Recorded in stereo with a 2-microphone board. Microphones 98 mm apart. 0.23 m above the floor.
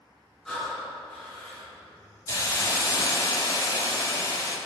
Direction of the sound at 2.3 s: 35° left (ahead or behind).